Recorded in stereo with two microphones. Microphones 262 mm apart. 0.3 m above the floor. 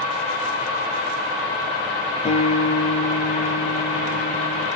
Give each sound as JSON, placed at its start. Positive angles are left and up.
{"t": 2.2, "sound": "a guitar", "side_deg": 25, "distance_m": 3.5}